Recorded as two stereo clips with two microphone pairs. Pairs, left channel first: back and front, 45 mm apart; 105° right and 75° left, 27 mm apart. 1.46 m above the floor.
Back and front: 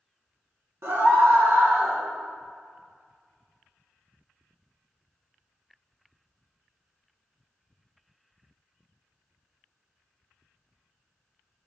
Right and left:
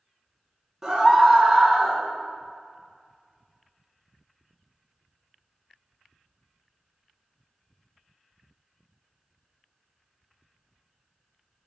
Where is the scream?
5° left, 1.6 m.